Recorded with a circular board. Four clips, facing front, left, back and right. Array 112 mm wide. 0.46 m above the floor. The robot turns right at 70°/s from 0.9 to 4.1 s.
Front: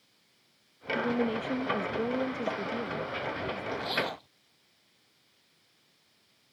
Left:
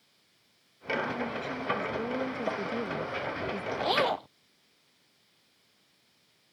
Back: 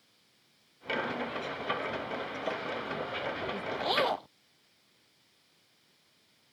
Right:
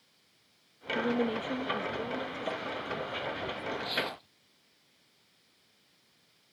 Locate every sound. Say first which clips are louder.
0.9 s a woman speaking: right 4 dB, front 6 dB; 65° right; by 3.7 s 130° left
3.8 s a zipper: left 9 dB, back 4 dB; 105° left; by 4.3 s 130° left